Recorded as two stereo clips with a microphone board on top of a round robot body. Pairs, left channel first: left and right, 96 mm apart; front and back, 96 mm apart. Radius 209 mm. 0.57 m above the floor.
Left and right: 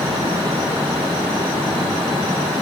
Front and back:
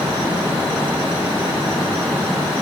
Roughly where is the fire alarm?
I don't hear a fire alarm.